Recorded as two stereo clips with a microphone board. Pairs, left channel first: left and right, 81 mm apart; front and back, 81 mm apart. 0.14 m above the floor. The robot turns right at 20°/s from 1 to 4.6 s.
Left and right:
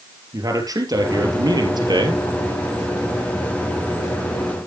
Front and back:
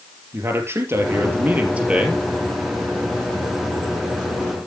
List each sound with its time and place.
0.3 s a man speaking: 125° right, 3 m; by 2.2 s 100° right, 3 m